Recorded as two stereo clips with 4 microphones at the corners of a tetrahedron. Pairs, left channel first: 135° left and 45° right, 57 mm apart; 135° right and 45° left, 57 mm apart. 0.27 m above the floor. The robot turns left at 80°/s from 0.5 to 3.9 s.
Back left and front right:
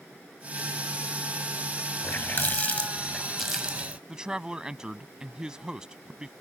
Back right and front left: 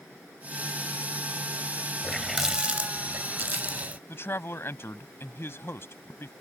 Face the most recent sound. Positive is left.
turn(degrees=-115)